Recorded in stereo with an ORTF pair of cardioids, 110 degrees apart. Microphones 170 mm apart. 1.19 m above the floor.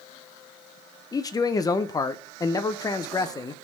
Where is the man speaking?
25° left, 0.6 m.